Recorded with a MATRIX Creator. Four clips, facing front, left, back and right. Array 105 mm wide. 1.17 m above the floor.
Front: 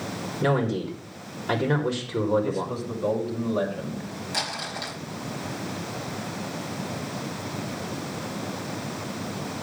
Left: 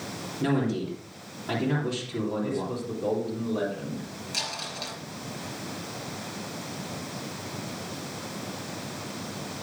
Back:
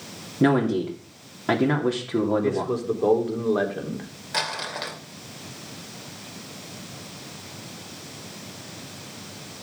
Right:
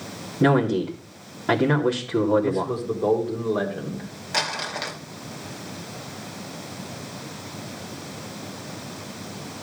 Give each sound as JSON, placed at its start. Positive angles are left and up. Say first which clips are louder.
{"t": 0.4, "sound": "a man speaking", "louder": "right 7 dB, back 4 dB", "azimuth_deg": -145, "distance_m": 3.0}
{"t": 2.4, "sound": "a man speaking", "louder": "right 6 dB, back 4 dB", "azimuth_deg": -150, "distance_m": 3.5}
{"t": 4.3, "sound": "crumpling", "louder": "right 10 dB, back 5 dB", "azimuth_deg": -125, "distance_m": 2.5}